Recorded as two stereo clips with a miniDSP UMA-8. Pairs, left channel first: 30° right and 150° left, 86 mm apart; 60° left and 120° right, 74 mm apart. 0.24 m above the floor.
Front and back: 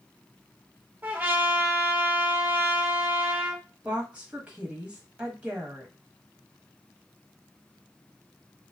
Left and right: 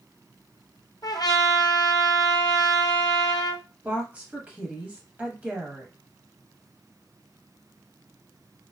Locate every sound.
1.0 s a trumpet: 85° left, 0.8 m
3.8 s a woman speaking: 155° right, 1.1 m